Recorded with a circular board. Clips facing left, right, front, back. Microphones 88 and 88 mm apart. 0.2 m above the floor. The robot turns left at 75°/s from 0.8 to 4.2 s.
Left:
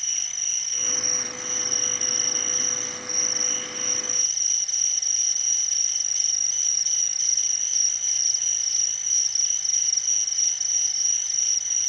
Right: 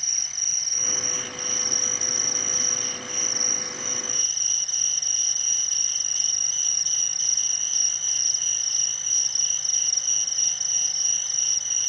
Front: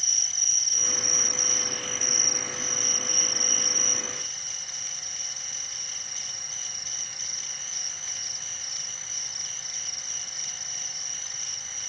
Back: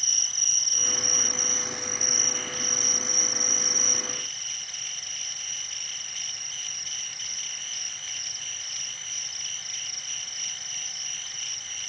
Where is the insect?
170° right, 0.8 m; by 11.9 s 65° right, 0.8 m.